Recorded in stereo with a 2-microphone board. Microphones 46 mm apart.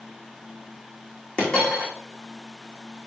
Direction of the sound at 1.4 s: 20° left (ahead or behind).